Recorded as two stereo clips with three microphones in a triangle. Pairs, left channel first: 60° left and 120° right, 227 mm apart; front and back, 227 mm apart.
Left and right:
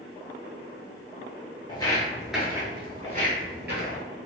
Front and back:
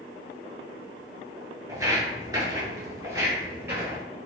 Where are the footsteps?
115° left, 0.9 m; by 4.0 s 100° right, 1.3 m.